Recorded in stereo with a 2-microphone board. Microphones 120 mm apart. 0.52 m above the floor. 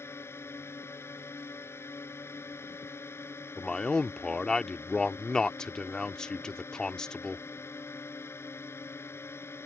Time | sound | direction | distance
0.0 | a drone | 20° left (ahead or behind) | ?
3.6 | a man speaking | 5° left (ahead or behind) | ?